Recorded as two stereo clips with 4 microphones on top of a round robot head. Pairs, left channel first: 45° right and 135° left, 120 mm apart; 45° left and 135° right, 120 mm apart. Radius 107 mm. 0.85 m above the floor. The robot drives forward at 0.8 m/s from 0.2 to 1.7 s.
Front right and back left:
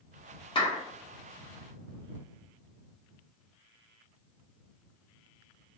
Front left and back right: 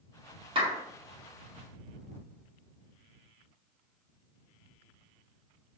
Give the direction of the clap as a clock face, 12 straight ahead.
3 o'clock.